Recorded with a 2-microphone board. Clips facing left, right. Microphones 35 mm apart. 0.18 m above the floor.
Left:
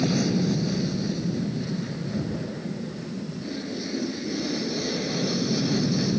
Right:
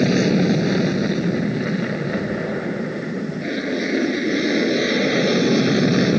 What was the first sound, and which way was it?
An aircraft, 55° right (ahead or behind).